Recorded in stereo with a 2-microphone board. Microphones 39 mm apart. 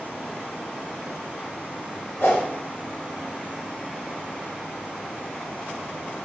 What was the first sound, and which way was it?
A whoosh, 80° left.